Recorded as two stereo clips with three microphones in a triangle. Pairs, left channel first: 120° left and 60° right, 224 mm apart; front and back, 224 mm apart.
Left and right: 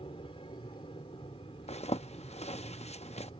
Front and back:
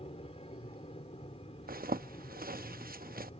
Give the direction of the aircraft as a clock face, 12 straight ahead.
10 o'clock.